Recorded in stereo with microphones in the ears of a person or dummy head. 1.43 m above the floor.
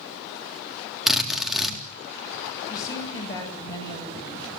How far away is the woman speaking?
About 9 m.